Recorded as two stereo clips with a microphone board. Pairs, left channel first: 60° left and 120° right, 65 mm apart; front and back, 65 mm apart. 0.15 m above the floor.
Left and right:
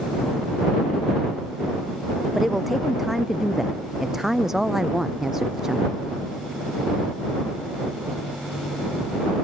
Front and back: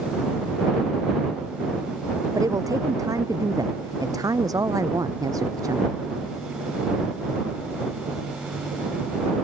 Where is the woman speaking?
155° left; by 6.0 s 160° left.